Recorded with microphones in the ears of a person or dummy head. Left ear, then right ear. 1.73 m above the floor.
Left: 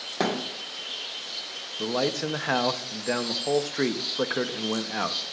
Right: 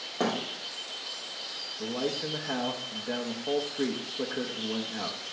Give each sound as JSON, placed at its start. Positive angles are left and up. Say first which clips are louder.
{"t": 0.2, "sound": "a thud", "louder": "left 2 dB", "side_deg": 25, "distance_m": 2.0}
{"t": 1.8, "sound": "a man speaking", "louder": "left 6 dB", "side_deg": 65, "distance_m": 0.9}